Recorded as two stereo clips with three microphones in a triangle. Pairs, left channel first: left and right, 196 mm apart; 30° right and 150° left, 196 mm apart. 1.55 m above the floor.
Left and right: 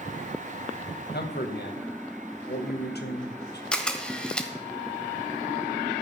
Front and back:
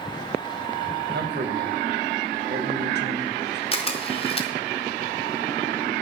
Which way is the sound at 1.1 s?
120° left.